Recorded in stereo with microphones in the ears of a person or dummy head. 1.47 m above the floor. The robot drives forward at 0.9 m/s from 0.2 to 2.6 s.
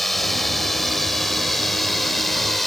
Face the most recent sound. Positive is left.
turn(degrees=0)  # may be behind; listen again after turning